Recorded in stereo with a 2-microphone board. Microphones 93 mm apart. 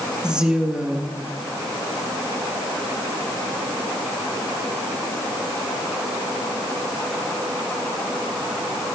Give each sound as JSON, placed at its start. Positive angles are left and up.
{"t": 0.2, "sound": "a woman speaking", "side_deg": -10, "distance_m": 2.0}